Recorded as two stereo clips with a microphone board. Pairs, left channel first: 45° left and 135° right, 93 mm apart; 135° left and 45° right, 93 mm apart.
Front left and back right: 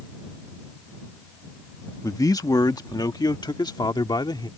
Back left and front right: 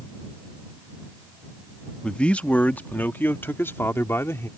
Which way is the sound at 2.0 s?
60° left.